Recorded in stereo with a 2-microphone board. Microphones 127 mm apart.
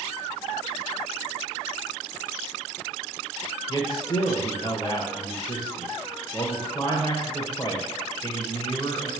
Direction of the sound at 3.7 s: 30° left (ahead or behind).